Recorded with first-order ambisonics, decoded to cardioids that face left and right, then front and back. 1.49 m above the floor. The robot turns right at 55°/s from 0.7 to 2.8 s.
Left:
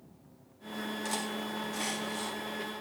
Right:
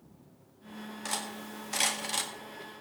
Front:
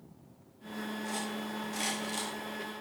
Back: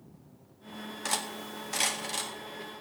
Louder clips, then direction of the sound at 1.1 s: Right 1 dB, back 7 dB; 170° right.